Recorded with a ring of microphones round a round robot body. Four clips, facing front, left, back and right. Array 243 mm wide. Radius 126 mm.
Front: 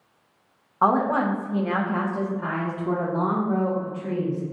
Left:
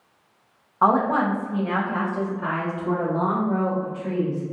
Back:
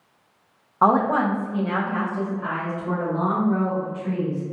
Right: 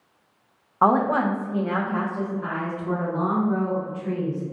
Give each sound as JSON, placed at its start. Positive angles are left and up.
{"t": 0.8, "sound": "a woman speaking", "azimuth_deg": -125, "distance_m": 1.0}